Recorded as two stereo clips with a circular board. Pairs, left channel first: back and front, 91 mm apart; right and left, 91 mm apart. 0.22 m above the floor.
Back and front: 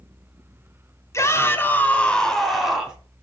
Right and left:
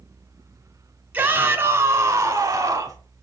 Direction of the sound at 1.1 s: 150° left.